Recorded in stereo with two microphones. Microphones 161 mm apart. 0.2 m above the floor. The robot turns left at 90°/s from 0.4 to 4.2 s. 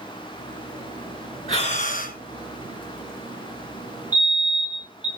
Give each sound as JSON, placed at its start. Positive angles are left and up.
{"t": 1.5, "sound": "breathing", "azimuth_deg": 140, "distance_m": 2.5}
{"t": 4.1, "sound": "a fire alarm", "side_deg": -10, "distance_m": 2.5}